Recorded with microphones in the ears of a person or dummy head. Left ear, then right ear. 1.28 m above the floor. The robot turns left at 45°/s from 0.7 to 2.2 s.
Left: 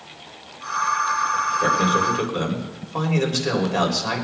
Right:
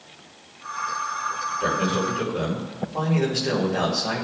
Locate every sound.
1.6 s a man speaking: 55° left (ahead or behind), 3 m; by 4.2 s 85° left, 3 m